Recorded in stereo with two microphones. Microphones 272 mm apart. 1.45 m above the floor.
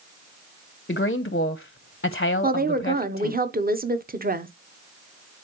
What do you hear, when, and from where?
0.9 s a woman speaking: 40° left (ahead or behind), 0.6 m
2.4 s a woman speaking: 30° right (ahead or behind), 0.8 m